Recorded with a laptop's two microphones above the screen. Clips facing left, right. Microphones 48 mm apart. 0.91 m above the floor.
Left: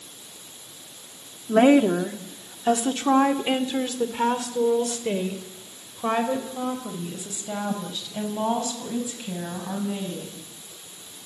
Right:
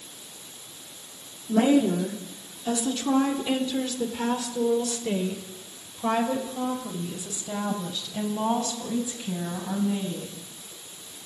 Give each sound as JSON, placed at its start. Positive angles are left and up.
{"t": 1.5, "sound": "a woman speaking", "side_deg": 65, "distance_m": 2.5}